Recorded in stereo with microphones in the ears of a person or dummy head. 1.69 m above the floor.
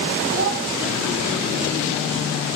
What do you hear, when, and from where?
0.3 s a child speaking: 50° right (ahead or behind), 0.9 m